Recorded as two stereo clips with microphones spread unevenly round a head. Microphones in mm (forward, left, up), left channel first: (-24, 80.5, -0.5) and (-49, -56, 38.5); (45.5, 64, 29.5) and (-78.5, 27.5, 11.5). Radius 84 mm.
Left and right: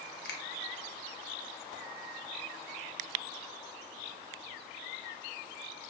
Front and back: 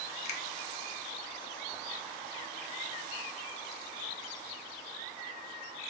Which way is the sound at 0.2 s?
45° left.